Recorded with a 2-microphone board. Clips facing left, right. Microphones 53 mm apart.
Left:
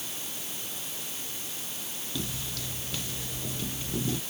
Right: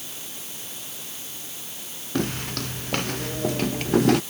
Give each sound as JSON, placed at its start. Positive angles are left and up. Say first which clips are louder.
{"t": 2.1, "sound": "footsteps", "louder": "right 11 dB", "side_deg": -60}